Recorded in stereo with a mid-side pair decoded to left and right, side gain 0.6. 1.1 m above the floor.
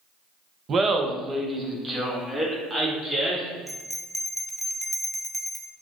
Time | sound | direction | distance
0.7 | laughter | 35° right | 0.7 m
3.7 | a bell | 5° right | 0.5 m